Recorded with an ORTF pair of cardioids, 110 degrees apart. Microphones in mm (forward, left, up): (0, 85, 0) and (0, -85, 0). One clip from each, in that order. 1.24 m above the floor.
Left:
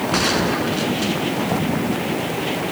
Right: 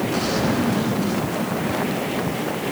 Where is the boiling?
No boiling in this recording.